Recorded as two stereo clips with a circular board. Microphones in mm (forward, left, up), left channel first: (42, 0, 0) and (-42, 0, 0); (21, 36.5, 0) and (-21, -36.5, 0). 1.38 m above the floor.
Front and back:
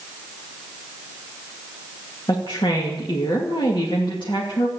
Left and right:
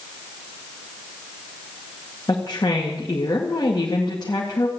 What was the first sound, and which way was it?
A woman speaking, 25° left.